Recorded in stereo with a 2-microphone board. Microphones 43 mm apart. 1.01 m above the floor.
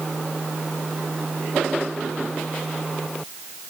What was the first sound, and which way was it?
Only background noise.